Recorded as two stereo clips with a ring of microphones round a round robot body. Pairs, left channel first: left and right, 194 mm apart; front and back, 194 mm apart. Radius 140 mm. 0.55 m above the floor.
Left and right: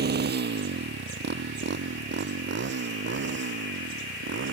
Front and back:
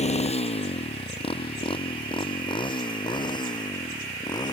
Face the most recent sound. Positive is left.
turn(degrees=-70)